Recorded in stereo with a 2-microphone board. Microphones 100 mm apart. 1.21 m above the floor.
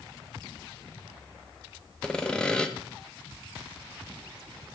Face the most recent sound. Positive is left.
turn(degrees=10)  # may be behind; listen again after turning